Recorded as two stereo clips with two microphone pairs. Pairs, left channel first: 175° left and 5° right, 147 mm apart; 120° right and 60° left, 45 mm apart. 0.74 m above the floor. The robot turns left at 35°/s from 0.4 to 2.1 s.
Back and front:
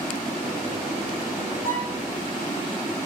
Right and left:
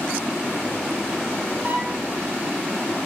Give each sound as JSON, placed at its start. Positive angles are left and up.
{"t": 1.6, "sound": "a violin", "azimuth_deg": 10, "distance_m": 6.0}